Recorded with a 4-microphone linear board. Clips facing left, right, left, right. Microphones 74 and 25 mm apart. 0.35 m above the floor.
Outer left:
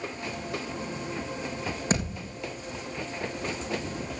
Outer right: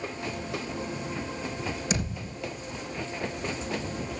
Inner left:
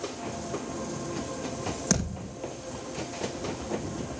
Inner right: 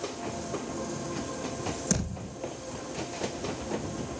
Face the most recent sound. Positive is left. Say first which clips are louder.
# outer left 2 dB, inner left 2 dB
turn(degrees=40)  # may be behind; listen again after turning